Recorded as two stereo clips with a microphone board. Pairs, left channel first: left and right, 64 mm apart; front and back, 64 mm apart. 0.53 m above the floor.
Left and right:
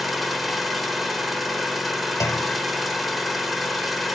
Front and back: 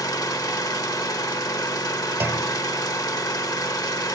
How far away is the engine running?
About 0.8 m.